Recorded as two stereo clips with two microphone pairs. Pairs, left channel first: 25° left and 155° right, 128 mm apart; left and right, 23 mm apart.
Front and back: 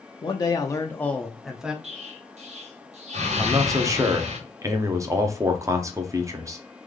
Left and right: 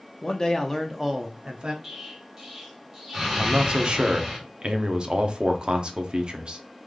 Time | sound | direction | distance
0.2 | a man speaking | 60° left | 0.7 m
1.8 | an explosion | 155° right | 2.0 m
3.4 | a man speaking | 100° right | 0.8 m